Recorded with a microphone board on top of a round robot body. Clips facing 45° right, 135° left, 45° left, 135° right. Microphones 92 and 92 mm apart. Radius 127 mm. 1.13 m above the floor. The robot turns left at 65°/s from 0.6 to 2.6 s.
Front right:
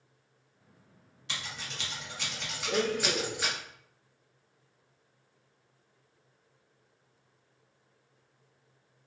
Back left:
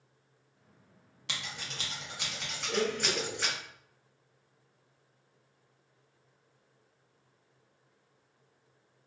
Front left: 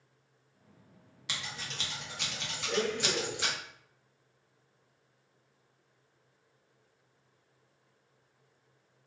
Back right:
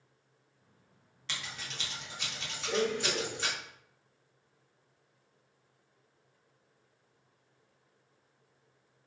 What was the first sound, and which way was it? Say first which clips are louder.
Scissors: front right 1 dB, front left 1 dB; 120° left.